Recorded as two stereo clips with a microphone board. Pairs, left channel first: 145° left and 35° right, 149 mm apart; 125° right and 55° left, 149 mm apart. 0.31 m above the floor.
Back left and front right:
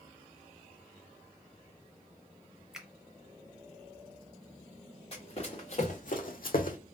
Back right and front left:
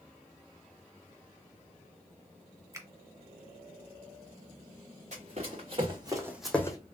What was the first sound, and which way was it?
A finger snap, 45° left.